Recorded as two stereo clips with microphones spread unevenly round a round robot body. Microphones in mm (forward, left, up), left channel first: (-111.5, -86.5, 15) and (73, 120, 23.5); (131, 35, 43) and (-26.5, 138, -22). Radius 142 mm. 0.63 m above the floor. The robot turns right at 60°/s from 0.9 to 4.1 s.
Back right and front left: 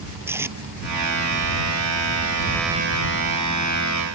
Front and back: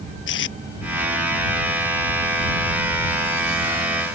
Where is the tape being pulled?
35° right.